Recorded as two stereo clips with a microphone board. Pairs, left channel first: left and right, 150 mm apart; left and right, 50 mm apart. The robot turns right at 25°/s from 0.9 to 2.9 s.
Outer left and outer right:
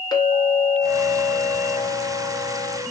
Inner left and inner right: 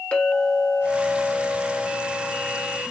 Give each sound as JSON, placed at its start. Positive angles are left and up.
{"t": 0.1, "sound": "a clink", "azimuth_deg": 120, "distance_m": 0.8}